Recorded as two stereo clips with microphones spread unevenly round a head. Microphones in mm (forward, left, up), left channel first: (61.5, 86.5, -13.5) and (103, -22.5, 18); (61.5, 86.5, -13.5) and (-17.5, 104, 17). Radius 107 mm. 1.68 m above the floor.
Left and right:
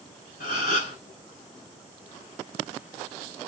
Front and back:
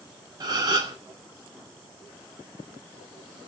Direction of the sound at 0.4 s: 145° left.